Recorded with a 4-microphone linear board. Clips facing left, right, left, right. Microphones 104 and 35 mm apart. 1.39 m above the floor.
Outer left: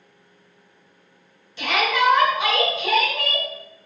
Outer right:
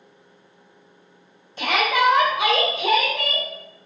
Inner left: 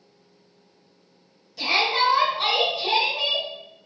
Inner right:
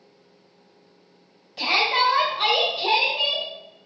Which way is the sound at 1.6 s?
40° right (ahead or behind).